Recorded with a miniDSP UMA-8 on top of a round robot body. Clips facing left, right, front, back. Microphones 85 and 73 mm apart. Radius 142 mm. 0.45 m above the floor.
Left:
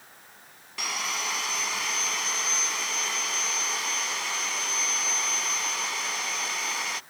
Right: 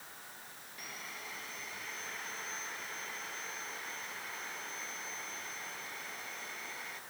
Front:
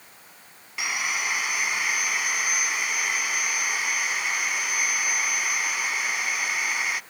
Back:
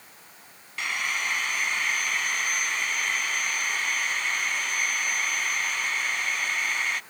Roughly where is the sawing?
Left.